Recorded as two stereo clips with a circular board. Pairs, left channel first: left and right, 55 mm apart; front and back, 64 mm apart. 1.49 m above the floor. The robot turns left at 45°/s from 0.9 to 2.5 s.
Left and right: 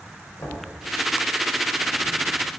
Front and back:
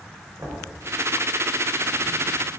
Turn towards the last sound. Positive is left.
turn(degrees=65)